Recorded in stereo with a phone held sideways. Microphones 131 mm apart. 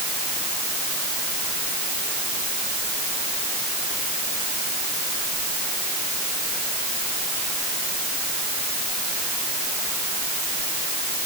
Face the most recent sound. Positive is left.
No sound to turn to.